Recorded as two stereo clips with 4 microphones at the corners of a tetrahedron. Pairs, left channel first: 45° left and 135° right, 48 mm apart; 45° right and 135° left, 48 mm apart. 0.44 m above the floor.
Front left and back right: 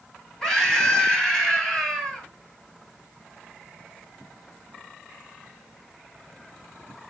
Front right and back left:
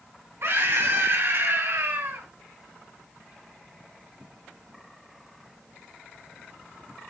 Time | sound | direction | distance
0.4 | a scream | 125° left | 4 m